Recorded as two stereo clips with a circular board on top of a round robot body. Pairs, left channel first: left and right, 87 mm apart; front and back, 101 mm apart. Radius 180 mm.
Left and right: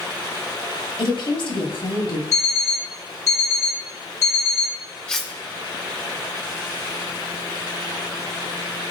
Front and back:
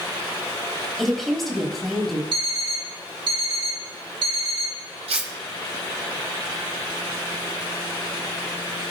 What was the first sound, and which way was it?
A woman speaking, 90° left.